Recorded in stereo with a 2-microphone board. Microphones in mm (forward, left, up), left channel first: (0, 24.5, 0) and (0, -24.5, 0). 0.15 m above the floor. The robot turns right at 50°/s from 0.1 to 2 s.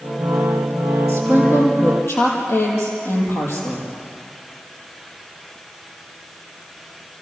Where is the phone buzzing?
No phone buzzing in this recording.